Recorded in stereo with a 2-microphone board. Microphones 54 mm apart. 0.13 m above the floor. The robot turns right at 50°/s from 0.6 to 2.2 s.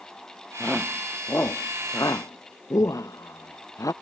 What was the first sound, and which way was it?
A shout, 10° left (ahead or behind).